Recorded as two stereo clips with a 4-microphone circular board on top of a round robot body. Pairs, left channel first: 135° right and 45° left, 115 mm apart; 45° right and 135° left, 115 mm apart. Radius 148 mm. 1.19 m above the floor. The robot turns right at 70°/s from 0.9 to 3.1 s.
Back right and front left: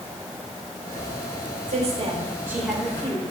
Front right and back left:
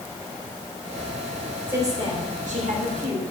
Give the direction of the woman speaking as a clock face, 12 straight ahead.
10 o'clock.